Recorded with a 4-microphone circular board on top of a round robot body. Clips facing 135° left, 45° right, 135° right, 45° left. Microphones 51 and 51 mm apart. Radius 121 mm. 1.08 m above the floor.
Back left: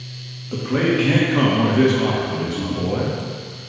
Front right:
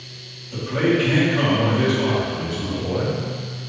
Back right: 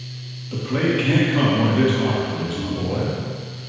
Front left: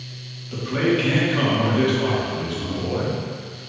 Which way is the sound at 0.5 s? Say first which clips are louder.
Back left 1 dB, even; 145° left.